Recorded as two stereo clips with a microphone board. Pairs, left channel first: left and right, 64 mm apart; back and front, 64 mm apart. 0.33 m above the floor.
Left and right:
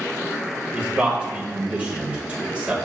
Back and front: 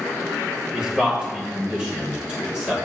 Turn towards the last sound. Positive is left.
turn(degrees=-55)